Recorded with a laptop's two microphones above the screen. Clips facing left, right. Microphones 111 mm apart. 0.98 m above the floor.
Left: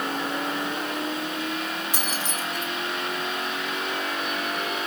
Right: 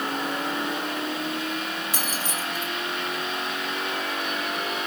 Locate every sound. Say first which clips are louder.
1.9 s keys jangling: even; 10° left (ahead or behind), 3.5 m